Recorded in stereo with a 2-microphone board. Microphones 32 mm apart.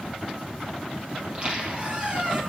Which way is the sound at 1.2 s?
35° right (ahead or behind).